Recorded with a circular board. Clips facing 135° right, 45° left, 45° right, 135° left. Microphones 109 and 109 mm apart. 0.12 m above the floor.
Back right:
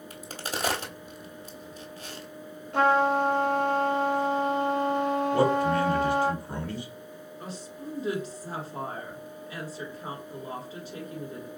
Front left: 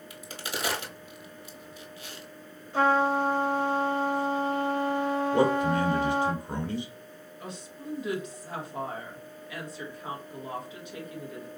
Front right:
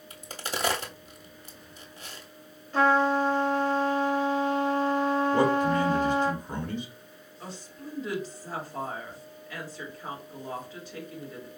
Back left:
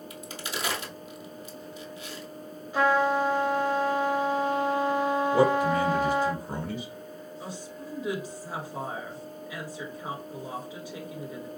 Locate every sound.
0.1 s a crack: 90° right, 1.0 m
2.7 s a trumpet: 150° right, 1.2 m
5.3 s a man speaking: 70° left, 1.3 m
7.4 s a woman speaking: 155° right, 1.6 m